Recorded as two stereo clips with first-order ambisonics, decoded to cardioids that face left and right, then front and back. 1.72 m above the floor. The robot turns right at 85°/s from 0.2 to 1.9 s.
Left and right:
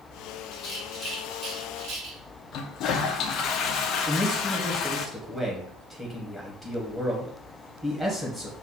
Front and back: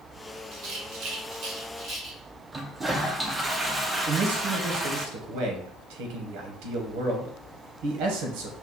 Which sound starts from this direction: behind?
A man speaking, at 4.1 s.